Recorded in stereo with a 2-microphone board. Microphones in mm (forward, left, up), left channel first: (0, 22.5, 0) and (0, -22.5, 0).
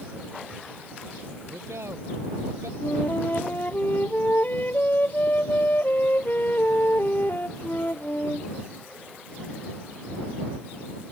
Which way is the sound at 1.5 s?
85° right.